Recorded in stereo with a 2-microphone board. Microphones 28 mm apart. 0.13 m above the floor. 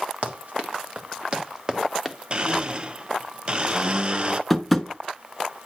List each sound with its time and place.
0.2 s running footsteps: 60° right (ahead or behind), 1.7 m; by 2.2 s 15° right (ahead or behind), 1.2 m
2.3 s a blender: 40° right (ahead or behind), 0.6 m
4.5 s tapping: centre (ahead or behind), 0.8 m